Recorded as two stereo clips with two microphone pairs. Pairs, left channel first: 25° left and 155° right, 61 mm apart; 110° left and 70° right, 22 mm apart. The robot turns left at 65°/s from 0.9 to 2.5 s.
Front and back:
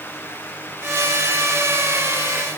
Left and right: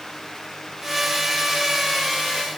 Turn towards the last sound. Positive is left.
No sound to turn to.